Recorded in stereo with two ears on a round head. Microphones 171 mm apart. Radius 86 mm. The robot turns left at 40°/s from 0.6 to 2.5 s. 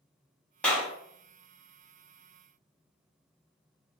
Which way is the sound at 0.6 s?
5° left (ahead or behind).